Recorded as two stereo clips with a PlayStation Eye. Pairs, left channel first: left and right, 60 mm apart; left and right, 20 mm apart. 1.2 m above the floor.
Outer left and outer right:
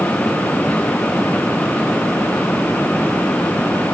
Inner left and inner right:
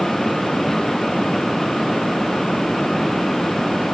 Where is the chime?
No chime in this recording.